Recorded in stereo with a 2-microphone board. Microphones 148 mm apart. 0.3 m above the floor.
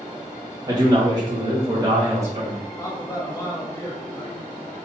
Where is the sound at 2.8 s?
25° left (ahead or behind), 1.1 m.